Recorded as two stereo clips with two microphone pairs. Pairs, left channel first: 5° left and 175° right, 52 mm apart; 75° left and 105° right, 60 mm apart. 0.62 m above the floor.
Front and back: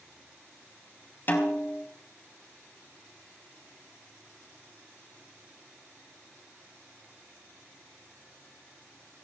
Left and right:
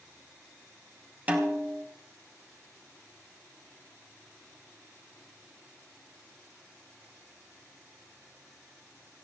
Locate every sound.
1.3 s a snare drum: 40° right, 2.5 m